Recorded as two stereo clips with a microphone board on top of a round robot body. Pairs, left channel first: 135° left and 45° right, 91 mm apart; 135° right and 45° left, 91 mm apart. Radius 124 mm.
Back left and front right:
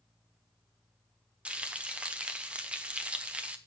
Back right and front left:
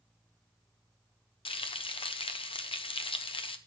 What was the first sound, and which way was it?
Frying, 120° right.